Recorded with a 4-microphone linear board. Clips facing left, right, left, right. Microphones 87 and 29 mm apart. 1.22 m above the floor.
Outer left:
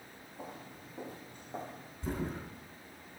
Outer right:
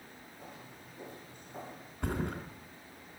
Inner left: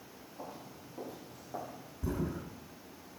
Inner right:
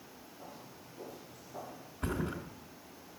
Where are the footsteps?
70° left (ahead or behind), 5.5 m; by 1.9 s 55° left (ahead or behind), 6 m.